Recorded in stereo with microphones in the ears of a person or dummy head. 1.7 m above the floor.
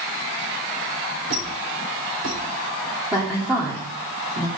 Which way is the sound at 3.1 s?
10° right (ahead or behind).